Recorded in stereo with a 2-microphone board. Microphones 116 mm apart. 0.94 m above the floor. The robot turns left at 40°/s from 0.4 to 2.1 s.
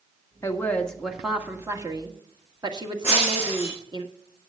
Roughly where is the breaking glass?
Right.